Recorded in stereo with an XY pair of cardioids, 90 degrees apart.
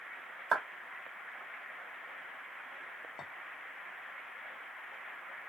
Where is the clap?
30° right, 1.6 m.